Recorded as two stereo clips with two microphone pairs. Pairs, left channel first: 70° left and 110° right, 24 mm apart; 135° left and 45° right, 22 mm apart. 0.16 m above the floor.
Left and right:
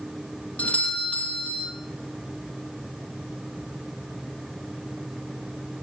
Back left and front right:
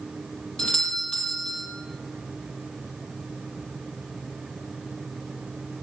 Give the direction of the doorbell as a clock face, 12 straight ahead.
9 o'clock.